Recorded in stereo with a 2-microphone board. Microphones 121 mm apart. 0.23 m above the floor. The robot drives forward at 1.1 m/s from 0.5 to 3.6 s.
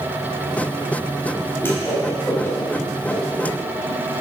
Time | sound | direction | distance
1.6 | a whoosh | 20° left (ahead or behind) | 4 m